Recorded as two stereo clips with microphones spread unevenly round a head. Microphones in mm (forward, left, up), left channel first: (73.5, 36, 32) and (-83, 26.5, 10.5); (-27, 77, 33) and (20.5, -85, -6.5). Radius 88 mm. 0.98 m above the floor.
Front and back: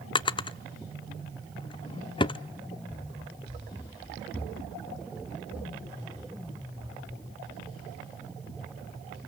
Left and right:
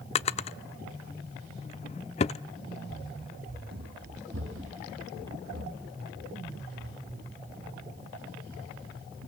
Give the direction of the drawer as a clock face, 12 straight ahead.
10 o'clock.